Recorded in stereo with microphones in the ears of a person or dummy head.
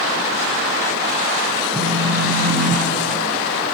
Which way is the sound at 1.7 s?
15° left (ahead or behind).